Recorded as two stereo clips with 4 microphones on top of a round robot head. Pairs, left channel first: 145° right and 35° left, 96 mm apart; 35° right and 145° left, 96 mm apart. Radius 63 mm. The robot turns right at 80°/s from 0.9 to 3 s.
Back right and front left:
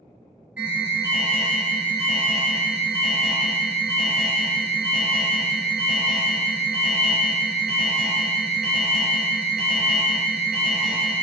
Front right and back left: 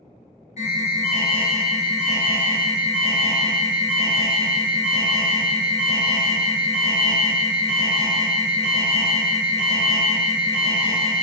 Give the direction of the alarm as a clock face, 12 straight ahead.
1 o'clock.